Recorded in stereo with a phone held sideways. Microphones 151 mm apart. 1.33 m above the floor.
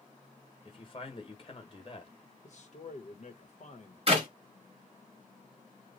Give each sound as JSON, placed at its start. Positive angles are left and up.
{"t": 0.7, "sound": "a man speaking", "side_deg": 40, "distance_m": 1.1}
{"t": 2.4, "sound": "a man speaking", "side_deg": 55, "distance_m": 1.0}
{"t": 4.1, "sound": "a clap", "side_deg": -45, "distance_m": 1.4}